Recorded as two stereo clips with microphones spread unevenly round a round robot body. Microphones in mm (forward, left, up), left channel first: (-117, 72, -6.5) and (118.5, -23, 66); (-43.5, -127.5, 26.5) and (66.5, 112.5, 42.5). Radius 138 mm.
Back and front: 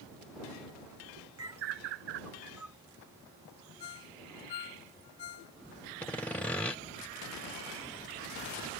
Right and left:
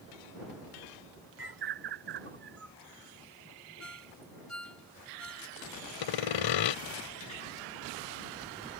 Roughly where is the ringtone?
Behind.